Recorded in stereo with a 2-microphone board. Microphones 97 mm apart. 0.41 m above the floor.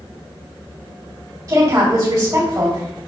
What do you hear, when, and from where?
1.5 s a woman speaking: 35° right (ahead or behind), 1.8 m